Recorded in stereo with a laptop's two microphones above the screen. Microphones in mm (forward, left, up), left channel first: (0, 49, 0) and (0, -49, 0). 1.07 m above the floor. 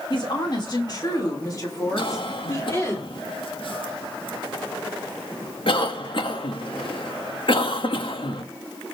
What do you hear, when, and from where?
0.1 s a woman speaking: 50° left (ahead or behind), 2 m; by 3.0 s 30° left (ahead or behind), 3 m
2.0 s a cough: 60° left (ahead or behind), 1.8 m